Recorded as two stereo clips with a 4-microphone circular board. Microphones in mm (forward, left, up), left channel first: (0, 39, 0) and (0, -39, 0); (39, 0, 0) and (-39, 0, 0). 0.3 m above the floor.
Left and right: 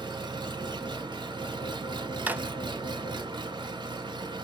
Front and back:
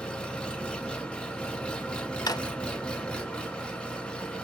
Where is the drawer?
25° right, 0.6 m.